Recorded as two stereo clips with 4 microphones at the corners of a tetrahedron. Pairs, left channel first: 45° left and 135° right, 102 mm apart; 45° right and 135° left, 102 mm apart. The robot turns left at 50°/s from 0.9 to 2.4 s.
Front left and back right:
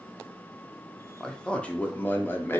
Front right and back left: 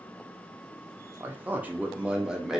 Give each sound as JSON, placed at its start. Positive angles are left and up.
{"t": 1.2, "sound": "a man speaking", "azimuth_deg": 125, "distance_m": 0.5}